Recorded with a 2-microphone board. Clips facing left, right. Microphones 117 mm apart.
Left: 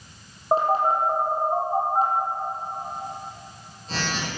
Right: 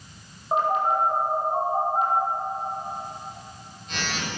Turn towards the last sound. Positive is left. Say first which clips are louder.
# left 2 dB
turn(degrees=35)  # may be behind; listen again after turning